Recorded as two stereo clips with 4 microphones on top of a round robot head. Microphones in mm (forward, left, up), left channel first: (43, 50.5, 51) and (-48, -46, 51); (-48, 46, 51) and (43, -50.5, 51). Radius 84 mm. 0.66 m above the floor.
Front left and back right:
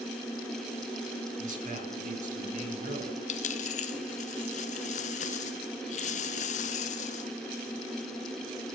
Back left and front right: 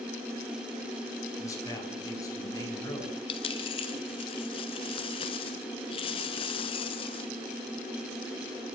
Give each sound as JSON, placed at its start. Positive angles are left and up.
{"t": 1.4, "sound": "a man speaking", "azimuth_deg": -160, "distance_m": 8.5}
{"t": 3.3, "sound": "a dropped coin", "azimuth_deg": 80, "distance_m": 1.2}